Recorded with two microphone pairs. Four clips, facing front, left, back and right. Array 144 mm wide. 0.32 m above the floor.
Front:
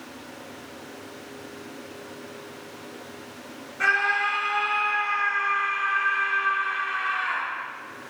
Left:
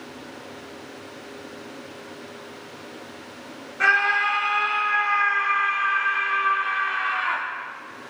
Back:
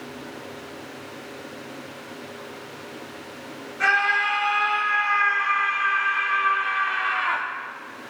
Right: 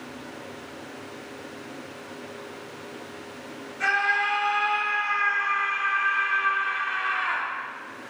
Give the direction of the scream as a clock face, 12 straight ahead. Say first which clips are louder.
Left 4 dB, back 2 dB; 9 o'clock.